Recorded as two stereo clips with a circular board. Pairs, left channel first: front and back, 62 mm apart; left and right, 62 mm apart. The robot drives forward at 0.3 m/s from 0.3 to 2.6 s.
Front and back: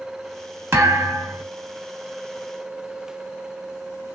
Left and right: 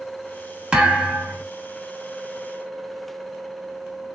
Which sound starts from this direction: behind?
A thud, at 0.7 s.